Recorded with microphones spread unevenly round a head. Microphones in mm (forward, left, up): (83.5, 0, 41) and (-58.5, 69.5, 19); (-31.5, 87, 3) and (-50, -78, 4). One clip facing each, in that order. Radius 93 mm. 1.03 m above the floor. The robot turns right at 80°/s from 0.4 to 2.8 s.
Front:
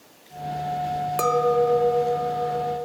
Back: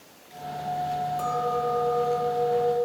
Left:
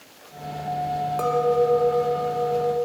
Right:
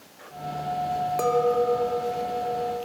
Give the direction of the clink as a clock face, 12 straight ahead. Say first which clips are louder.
Front 11 dB, left 2 dB; 1 o'clock.